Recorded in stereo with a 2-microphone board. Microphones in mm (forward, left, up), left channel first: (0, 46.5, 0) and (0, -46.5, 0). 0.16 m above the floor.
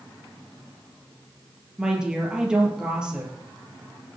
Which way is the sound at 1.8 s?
10° right (ahead or behind).